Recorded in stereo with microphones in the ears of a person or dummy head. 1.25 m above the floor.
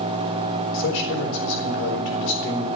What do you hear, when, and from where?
0.7 s a man speaking: 75° left (ahead or behind), 4 m